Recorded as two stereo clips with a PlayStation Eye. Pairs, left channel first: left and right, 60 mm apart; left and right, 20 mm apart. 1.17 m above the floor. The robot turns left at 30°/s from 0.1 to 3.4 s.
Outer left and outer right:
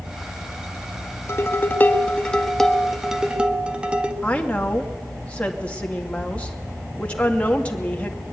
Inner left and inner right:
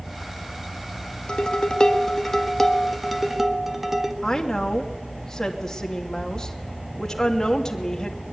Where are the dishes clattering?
45° left, 1.3 m; by 4.1 s 20° right, 1.3 m.